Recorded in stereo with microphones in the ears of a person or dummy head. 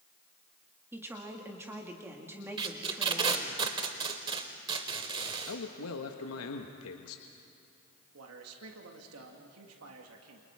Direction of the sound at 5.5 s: 80° left.